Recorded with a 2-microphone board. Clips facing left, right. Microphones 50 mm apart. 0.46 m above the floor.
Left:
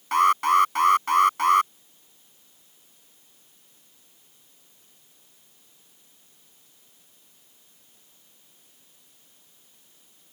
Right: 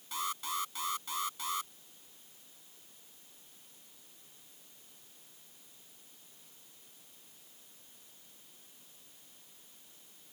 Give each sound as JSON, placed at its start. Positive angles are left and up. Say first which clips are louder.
{"t": 0.1, "sound": "an alarm", "louder": "left 19 dB", "side_deg": 65}